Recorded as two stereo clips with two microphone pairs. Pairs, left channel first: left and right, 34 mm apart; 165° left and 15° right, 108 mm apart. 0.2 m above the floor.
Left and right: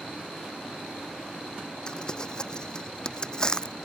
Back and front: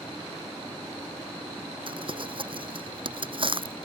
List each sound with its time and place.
1.9 s crumpling: 25° left